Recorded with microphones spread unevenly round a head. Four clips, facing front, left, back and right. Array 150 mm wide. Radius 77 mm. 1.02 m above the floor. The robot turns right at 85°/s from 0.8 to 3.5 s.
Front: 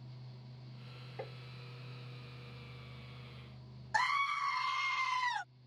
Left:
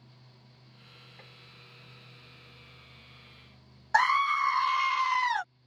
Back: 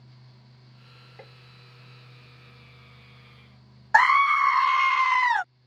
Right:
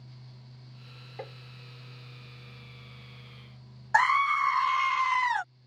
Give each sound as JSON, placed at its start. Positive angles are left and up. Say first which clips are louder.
{"t": 1.2, "sound": "tapping", "louder": "right 17 dB, front 4 dB", "azimuth_deg": -65}
{"t": 3.9, "sound": "a scream", "louder": "right 1 dB, back 15 dB", "azimuth_deg": -170}